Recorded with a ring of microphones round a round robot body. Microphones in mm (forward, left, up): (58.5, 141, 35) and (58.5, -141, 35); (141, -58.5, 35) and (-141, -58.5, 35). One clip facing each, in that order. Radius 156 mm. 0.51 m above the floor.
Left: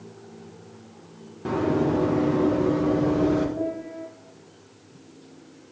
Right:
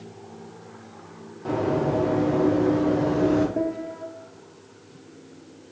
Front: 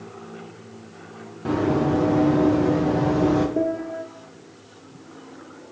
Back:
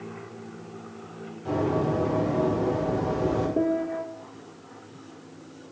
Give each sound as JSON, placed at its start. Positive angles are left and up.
{"t": 1.4, "sound": "running footsteps", "azimuth_deg": 35, "distance_m": 4.5}
{"t": 3.6, "sound": "a piano", "azimuth_deg": -90, "distance_m": 1.9}